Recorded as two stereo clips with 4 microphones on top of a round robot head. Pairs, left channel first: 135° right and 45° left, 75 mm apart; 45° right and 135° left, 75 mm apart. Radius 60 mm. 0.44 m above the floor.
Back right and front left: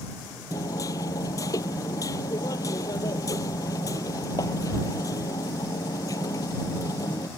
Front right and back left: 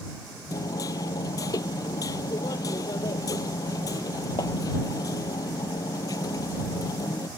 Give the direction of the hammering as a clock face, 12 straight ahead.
3 o'clock.